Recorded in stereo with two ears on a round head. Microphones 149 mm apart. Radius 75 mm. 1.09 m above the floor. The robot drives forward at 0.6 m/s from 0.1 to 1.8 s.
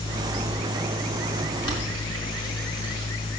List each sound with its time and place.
1.6 s boiling: 30° left (ahead or behind), 4 m